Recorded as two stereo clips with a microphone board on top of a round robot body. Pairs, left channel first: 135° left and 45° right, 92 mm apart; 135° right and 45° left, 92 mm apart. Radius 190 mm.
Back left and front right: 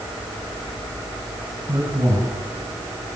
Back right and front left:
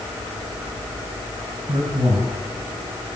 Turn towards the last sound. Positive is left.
turn(degrees=15)